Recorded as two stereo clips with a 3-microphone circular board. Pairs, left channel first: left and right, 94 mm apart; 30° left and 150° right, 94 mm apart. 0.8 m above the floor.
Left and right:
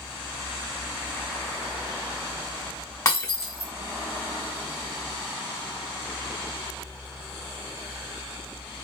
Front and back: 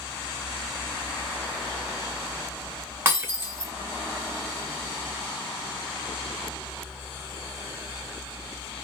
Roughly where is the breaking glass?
Behind left.